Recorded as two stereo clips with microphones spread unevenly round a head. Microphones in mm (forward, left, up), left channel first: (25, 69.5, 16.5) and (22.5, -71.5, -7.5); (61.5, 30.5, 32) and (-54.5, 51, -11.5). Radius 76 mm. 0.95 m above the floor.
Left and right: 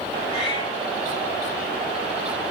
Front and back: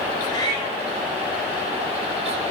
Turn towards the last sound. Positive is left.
turn(degrees=40)